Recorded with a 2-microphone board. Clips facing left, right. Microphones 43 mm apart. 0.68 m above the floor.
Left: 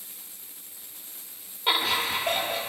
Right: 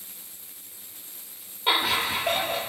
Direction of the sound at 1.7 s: 5° right (ahead or behind).